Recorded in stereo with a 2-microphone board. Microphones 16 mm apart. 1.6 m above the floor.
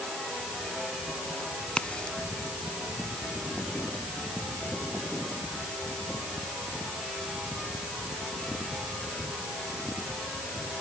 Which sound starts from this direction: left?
A crack, at 1.7 s.